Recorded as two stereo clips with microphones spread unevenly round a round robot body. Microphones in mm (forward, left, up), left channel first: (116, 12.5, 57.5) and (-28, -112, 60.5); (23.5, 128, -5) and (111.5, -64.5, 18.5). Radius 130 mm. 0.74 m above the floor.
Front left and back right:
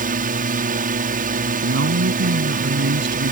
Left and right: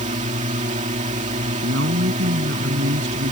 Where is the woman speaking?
115° right.